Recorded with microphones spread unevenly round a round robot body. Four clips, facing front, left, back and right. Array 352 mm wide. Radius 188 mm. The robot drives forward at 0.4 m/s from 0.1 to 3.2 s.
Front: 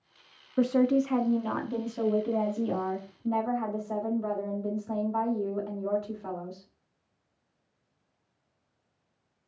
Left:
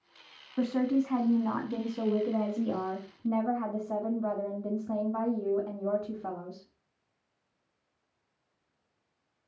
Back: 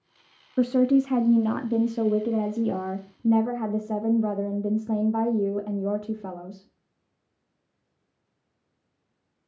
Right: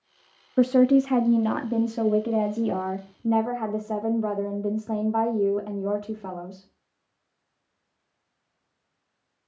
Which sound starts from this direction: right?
A woman speaking, at 0.6 s.